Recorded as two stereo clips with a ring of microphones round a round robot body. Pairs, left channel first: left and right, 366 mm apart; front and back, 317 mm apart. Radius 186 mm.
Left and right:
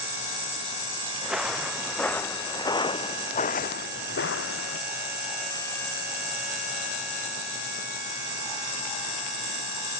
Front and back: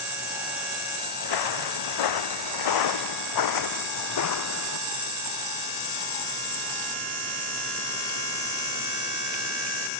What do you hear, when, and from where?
1.2 s footsteps: 5° right; by 4.8 s 35° left